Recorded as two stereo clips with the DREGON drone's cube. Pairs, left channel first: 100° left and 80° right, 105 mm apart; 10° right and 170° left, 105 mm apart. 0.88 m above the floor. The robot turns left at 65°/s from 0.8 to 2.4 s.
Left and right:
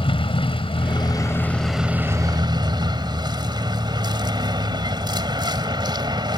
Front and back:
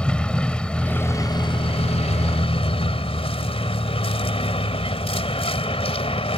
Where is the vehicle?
70° left; by 6.4 s 35° right.